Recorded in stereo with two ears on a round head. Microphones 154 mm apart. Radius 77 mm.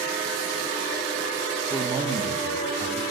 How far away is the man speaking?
About 0.6 m.